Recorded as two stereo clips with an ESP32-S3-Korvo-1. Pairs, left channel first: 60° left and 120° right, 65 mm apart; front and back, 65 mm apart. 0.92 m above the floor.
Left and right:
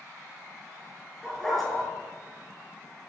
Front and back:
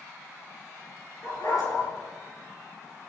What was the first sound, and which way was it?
A dog barking, 25° right.